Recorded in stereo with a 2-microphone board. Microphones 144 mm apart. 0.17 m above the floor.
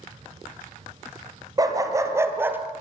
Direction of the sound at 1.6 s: 25° right (ahead or behind).